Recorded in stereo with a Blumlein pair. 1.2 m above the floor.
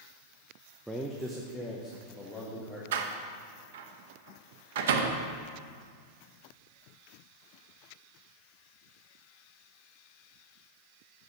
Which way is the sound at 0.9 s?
5° right.